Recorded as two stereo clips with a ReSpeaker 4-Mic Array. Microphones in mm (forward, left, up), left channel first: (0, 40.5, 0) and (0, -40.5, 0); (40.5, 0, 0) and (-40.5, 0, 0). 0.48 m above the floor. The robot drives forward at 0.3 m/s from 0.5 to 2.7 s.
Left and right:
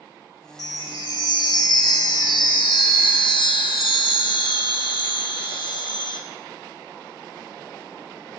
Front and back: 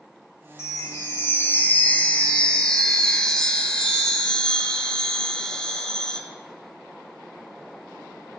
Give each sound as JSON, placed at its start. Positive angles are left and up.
{"t": 0.6, "sound": "a chime", "azimuth_deg": 55, "distance_m": 1.3}